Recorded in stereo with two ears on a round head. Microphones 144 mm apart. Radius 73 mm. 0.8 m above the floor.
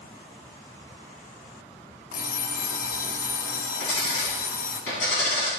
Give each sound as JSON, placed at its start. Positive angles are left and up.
{"t": 2.1, "sound": "an alarm clock", "side_deg": 60, "distance_m": 1.0}
{"t": 3.8, "sound": "a dropped coin", "side_deg": 85, "distance_m": 4.0}